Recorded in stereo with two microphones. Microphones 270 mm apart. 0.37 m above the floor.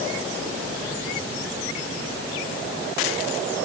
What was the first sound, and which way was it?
Only background noise.